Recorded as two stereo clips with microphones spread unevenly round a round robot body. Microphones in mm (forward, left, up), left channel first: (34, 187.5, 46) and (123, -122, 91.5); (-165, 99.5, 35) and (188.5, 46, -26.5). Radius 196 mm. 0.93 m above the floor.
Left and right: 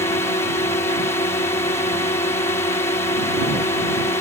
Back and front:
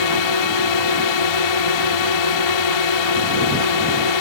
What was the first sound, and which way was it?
A drone, 175° right.